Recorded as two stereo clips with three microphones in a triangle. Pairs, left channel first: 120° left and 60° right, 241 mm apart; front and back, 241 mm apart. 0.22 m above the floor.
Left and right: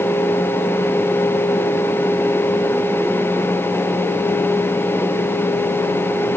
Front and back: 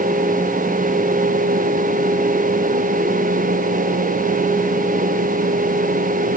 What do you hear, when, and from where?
Only background noise.